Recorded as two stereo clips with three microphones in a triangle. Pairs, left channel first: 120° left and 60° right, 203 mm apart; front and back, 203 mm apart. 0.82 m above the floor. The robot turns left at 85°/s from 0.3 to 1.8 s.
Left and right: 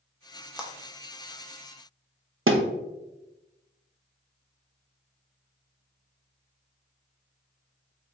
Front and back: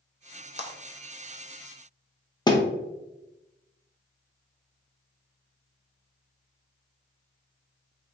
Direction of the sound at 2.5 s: 65° right.